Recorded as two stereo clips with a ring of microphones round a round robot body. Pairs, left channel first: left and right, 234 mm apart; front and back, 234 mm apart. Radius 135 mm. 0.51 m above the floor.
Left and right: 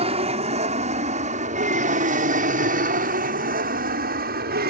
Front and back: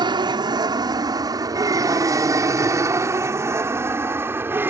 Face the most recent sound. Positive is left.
turn(degrees=-105)